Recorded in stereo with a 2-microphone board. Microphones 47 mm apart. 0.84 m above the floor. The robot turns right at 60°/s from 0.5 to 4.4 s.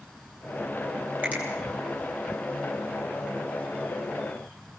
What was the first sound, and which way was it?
A finger snap, 35° right (ahead or behind).